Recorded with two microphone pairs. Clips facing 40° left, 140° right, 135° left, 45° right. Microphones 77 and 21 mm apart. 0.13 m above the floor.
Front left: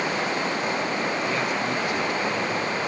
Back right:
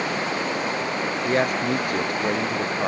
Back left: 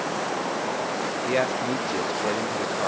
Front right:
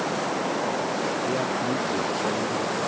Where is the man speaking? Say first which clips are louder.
Back right 4 dB, back left 1 dB; straight behind.